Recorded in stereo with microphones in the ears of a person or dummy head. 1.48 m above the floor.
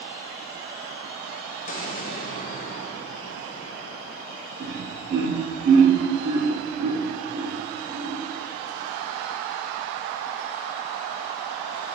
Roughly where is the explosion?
Left.